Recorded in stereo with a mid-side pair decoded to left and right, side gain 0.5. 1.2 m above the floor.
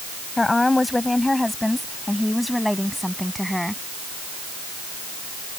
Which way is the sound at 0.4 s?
15° left.